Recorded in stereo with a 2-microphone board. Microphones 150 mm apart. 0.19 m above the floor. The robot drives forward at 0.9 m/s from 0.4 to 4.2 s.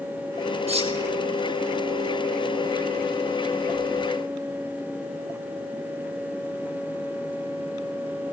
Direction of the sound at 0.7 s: 45° right (ahead or behind).